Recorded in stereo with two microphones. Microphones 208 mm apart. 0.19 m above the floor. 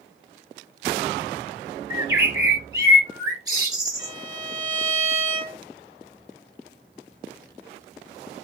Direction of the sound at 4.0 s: 40° right (ahead or behind).